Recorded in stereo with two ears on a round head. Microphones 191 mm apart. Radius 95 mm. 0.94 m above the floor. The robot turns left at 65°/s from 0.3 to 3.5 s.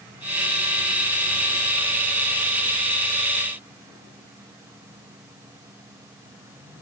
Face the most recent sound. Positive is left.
No sound to turn to.